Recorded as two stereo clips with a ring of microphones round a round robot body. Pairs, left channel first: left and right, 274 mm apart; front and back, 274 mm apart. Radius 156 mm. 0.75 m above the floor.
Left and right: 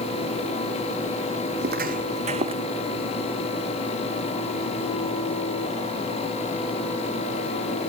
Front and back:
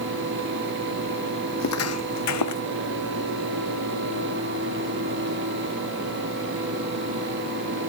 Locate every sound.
1.6 s footsteps: 35° right; by 2.6 s 15° right